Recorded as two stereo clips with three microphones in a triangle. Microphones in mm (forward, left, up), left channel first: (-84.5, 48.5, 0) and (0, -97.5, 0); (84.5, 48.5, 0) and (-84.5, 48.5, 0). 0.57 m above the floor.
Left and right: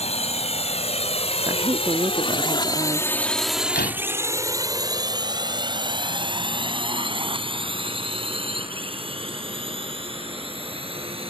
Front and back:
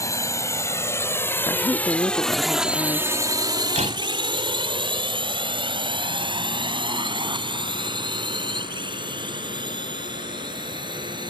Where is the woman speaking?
40° right.